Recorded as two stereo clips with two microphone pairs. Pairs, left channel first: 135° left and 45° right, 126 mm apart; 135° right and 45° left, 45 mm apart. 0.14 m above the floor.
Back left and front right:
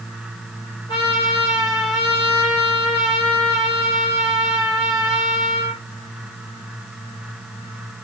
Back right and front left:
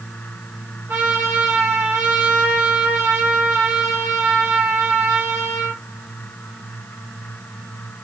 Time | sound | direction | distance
0.9 | a trumpet | 90° left | 5 m